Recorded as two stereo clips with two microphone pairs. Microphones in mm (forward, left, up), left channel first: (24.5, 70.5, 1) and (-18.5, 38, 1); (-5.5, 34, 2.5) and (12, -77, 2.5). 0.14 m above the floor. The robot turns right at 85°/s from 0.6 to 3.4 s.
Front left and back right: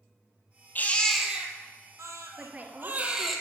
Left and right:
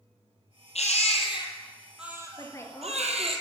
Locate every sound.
0.8 s a baby crying: 90° left, 2.0 m; by 3.4 s 50° right, 2.0 m
2.4 s a woman speaking: 145° left, 2.5 m; by 3.3 s 135° right, 2.5 m